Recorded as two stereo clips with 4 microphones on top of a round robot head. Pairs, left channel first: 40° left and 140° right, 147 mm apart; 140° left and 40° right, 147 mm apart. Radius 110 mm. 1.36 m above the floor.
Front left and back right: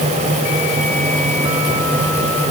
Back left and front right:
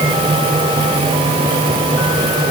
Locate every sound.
Only background noise.